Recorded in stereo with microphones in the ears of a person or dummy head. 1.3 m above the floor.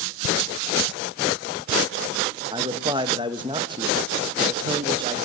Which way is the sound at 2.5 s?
20° right (ahead or behind).